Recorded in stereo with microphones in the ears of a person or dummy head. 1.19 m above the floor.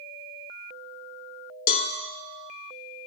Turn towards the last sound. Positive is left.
turn(degrees=45)  # may be behind; listen again after turning